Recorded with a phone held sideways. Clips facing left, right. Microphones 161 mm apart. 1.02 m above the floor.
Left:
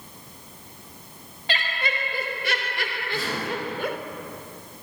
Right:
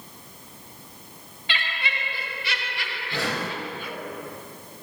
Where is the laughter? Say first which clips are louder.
Left 4 dB; 45° left (ahead or behind), 4 m; by 4.0 s 70° left (ahead or behind), 3 m.